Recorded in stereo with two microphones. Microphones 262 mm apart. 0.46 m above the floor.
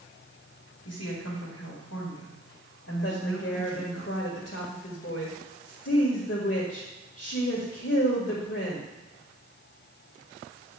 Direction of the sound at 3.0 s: 50° left (ahead or behind).